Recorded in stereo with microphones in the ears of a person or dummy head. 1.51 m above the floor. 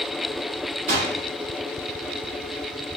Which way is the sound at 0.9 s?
25° right (ahead or behind).